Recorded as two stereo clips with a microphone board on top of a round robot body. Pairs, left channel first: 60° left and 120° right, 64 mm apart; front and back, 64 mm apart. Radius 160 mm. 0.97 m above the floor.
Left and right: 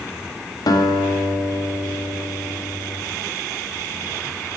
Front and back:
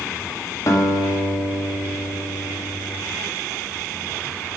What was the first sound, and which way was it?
A guitar, 40° left.